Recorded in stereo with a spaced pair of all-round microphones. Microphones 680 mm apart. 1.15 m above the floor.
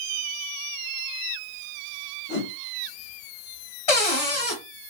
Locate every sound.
2.3 s a whoosh: 70° left (ahead or behind), 1.0 m
3.9 s a cupboard door: 55° left (ahead or behind), 1.2 m